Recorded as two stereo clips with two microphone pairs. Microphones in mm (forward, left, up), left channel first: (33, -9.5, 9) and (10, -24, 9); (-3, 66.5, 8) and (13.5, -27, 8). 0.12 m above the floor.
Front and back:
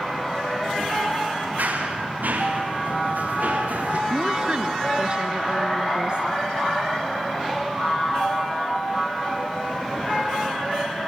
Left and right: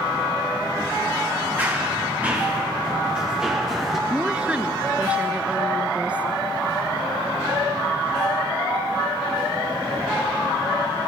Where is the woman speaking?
150° right, 1.4 m.